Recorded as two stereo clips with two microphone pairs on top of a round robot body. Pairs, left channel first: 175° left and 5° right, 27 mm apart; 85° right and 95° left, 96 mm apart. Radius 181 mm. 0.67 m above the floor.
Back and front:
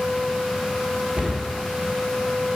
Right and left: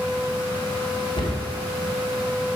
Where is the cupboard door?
55° right, 1.7 m.